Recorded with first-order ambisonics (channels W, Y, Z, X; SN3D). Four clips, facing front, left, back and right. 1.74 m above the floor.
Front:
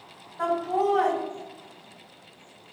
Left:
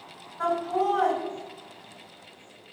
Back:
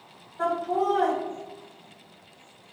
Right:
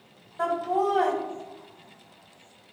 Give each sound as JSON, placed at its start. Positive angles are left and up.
{"t": 0.4, "sound": "laughter", "azimuth_deg": -85, "distance_m": 1.4}